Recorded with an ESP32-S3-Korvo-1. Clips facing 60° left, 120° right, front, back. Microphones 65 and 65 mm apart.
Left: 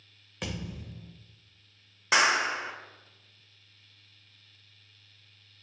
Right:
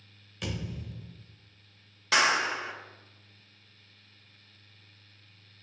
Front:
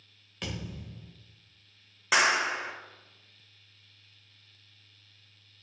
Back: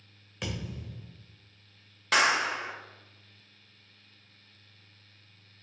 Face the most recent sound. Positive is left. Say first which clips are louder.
# left 1 dB, even
turn(degrees=60)